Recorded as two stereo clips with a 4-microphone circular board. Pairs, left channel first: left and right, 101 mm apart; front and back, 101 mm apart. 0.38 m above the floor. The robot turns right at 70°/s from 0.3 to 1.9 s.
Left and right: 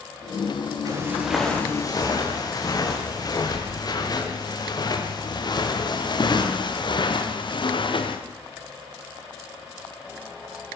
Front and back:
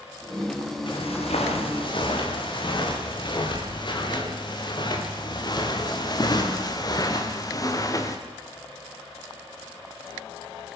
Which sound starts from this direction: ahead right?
Footsteps, at 0.9 s.